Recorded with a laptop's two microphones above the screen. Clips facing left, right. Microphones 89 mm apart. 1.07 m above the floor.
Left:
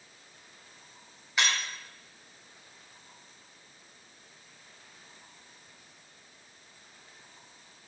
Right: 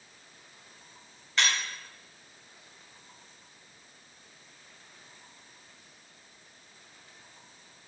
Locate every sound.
1.4 s breaking glass: 10° left (ahead or behind), 3.5 m